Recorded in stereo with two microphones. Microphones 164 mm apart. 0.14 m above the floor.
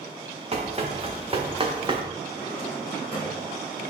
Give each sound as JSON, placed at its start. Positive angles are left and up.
{"t": 0.5, "sound": "running footsteps", "side_deg": -40, "distance_m": 1.9}
{"t": 2.3, "sound": "a drawer", "side_deg": 30, "distance_m": 2.5}